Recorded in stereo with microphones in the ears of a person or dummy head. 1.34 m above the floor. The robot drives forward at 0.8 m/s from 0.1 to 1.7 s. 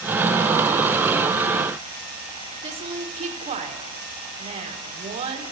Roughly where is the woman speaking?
Right.